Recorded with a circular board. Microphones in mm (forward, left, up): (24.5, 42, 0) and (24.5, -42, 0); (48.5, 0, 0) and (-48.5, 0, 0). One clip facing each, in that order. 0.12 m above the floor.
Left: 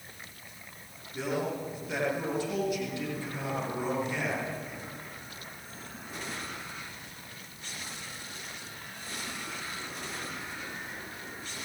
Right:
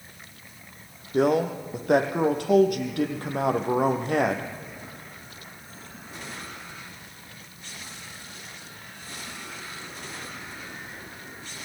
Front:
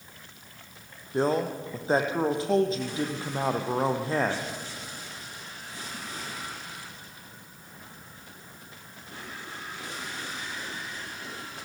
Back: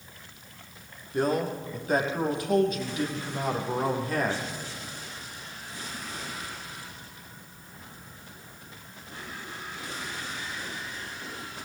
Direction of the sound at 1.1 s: 65° right.